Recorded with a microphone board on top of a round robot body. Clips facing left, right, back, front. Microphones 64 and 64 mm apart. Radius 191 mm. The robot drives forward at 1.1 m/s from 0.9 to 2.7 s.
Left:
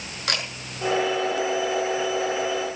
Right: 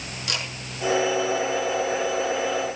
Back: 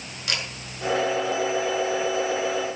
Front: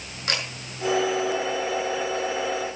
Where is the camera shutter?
50° left, 6.5 m.